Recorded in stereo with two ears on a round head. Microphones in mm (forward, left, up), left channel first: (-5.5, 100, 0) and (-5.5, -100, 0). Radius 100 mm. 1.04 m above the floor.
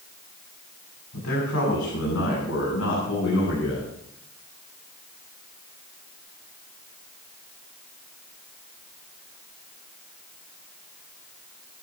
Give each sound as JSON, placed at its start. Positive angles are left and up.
{"t": 1.1, "sound": "a man speaking", "side_deg": 75, "distance_m": 7.5}